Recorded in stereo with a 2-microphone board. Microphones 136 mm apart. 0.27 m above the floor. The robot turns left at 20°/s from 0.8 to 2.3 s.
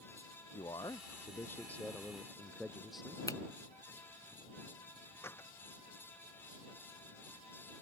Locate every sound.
0.5 s a man speaking: 30° left (ahead or behind); by 3.2 s centre (ahead or behind)
3.3 s a finger snap: 20° left (ahead or behind)
5.2 s a door slam: 15° left (ahead or behind)